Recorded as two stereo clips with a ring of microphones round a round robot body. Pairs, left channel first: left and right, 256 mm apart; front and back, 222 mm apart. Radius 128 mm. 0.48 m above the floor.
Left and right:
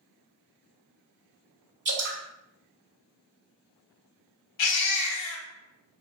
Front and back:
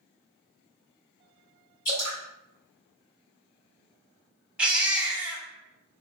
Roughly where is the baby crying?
Left.